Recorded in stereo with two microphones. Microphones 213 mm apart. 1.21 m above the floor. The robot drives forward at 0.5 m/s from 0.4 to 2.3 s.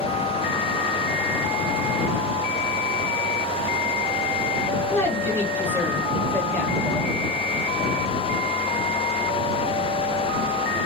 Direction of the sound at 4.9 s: 10° left (ahead or behind).